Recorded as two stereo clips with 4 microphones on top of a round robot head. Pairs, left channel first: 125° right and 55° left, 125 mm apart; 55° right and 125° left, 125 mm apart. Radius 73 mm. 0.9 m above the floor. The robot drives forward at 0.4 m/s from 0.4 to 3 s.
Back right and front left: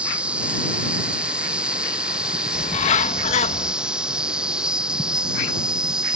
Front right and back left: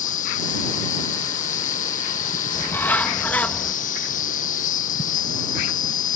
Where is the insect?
25° right; by 6.2 s 30° right.